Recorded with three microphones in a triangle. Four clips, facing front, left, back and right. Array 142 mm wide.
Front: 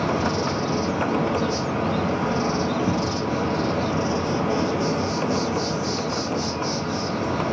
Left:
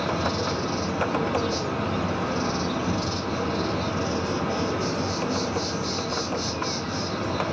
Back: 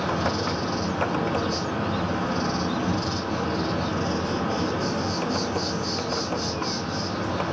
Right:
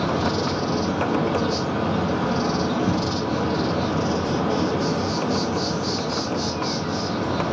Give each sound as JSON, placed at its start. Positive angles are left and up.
{"t": 0.0, "sound": "an insect", "azimuth_deg": -50, "distance_m": 0.8}